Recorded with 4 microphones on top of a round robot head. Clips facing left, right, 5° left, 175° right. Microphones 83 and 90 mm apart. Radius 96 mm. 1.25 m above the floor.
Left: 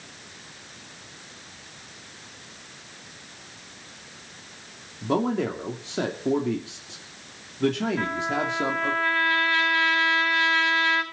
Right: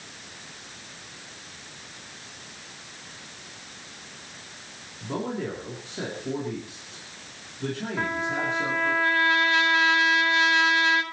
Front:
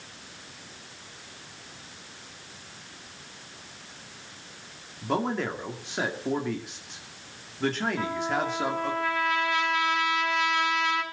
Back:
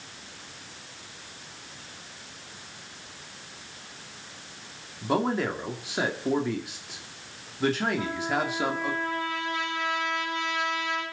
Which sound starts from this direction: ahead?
A trumpet, at 8.0 s.